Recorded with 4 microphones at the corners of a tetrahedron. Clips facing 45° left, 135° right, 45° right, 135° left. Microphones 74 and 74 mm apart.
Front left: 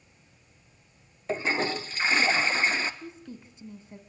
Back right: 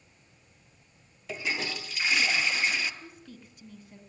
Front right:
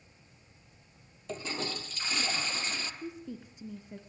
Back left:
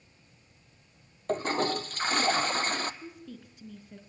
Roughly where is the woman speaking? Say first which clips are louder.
Front left 5 dB, front right 3 dB; ahead.